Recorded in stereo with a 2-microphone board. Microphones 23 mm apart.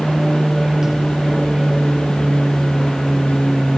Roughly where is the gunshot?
I don't hear a gunshot.